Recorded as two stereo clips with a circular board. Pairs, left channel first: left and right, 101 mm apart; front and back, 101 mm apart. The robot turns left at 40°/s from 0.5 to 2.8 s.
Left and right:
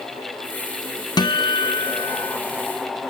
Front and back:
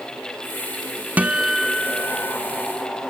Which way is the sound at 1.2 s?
110° left.